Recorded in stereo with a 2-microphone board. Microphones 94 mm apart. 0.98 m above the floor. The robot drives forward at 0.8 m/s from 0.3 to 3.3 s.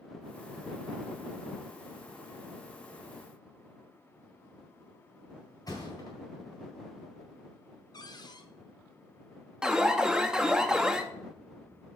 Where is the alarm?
10° right (ahead or behind), 0.7 m.